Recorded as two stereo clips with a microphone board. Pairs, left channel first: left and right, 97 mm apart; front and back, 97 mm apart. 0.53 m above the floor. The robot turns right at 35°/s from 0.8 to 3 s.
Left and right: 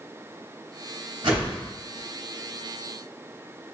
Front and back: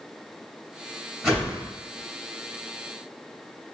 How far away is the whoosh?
About 2 m.